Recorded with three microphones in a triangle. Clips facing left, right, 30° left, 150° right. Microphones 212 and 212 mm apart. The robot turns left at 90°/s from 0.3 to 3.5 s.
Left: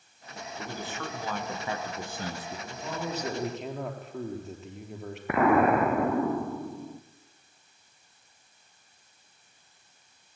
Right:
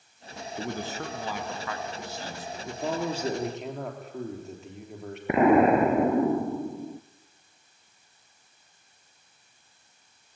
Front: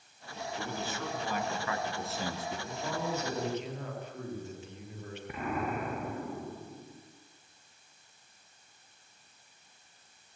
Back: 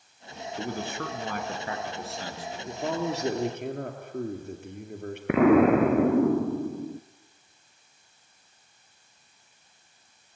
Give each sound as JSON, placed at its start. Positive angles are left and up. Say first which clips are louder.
{"t": 0.6, "sound": "a man speaking", "louder": "right 4 dB, back 6 dB", "azimuth_deg": -105, "distance_m": 3.0}
{"t": 2.7, "sound": "a man speaking", "louder": "right 6 dB, back 7 dB", "azimuth_deg": -105, "distance_m": 3.0}
{"t": 5.3, "sound": "an explosion", "louder": "right 3 dB, back 18 dB", "azimuth_deg": -160, "distance_m": 0.8}